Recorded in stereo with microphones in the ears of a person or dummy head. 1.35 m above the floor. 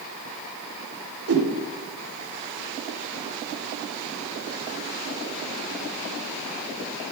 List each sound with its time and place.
1.3 s a whoosh: 70° right (ahead or behind), 1.6 m